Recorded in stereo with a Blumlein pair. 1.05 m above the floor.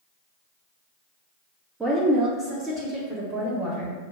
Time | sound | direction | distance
1.8 | a woman speaking | 15° right | 0.7 m